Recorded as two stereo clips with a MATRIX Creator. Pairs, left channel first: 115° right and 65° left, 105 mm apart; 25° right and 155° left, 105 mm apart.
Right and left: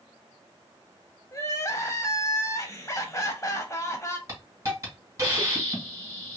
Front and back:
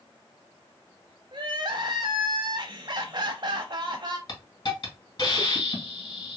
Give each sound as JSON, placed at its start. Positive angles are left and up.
{"t": 1.3, "sound": "crying", "azimuth_deg": -165, "distance_m": 0.6}
{"t": 4.3, "sound": "a hiss", "azimuth_deg": 5, "distance_m": 1.7}